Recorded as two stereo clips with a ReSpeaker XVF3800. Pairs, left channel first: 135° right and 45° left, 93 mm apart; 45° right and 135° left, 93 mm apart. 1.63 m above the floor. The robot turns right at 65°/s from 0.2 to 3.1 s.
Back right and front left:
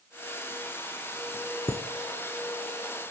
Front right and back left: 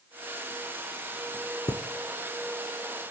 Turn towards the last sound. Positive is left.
turn(degrees=5)